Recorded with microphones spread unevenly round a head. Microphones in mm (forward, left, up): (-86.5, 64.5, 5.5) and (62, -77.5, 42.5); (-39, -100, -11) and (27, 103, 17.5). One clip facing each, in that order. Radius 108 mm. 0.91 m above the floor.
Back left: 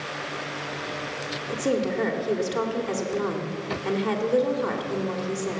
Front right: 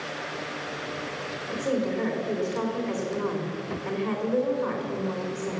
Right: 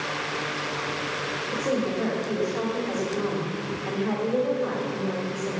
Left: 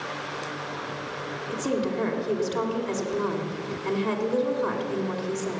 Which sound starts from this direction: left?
A woman speaking, at 1.5 s.